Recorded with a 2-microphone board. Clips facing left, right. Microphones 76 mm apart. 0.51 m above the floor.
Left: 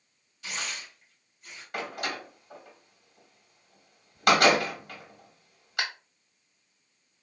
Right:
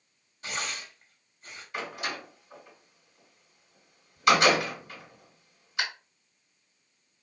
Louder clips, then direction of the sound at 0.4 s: Right 2 dB; 35° right (ahead or behind).